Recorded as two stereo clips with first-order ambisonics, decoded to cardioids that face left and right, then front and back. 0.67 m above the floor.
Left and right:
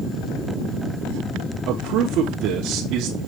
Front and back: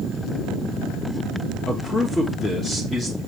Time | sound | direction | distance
1.7 | a man speaking | 75° right | 1.1 m